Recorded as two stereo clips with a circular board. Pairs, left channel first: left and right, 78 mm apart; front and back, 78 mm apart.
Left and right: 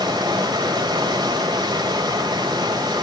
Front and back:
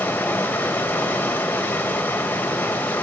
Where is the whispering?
I don't hear whispering.